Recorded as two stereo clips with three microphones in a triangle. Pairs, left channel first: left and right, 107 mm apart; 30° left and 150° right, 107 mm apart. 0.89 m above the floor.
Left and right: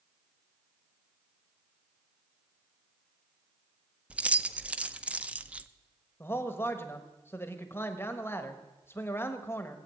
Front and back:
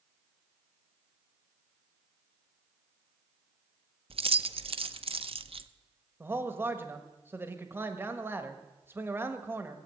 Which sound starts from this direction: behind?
Keys jangling, at 4.1 s.